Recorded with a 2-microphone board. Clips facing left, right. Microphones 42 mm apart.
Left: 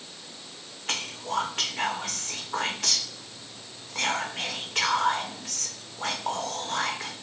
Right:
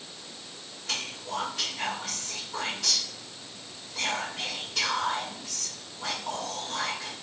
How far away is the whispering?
About 1.0 m.